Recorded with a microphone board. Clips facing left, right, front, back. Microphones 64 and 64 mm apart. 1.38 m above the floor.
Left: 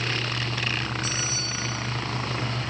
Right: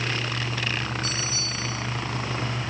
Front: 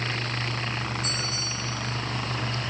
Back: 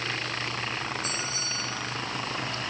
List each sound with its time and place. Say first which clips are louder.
1.0 s a bell: even, front 1 dB; 20° left, 8.5 m